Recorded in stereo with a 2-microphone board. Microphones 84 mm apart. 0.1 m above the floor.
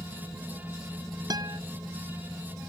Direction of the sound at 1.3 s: 50° right (ahead or behind).